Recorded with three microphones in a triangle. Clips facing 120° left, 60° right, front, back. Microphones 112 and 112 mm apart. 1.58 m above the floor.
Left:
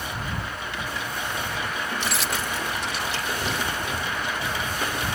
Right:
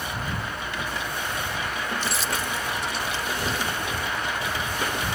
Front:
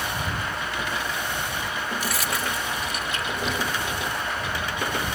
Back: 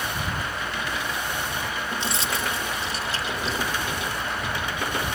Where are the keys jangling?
115° left; by 3.6 s 125° left.